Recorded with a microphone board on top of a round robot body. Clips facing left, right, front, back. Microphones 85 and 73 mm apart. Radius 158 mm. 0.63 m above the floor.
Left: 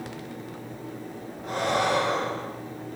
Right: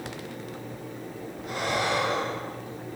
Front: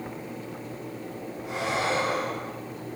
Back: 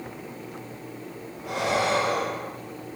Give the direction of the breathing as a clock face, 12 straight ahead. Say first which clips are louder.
Left 3 dB, back 3 dB; 7 o'clock.